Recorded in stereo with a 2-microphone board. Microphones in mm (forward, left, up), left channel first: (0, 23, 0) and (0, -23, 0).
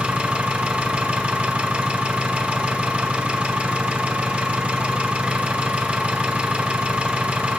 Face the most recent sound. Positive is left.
turn(degrees=-25)  # may be behind; listen again after turning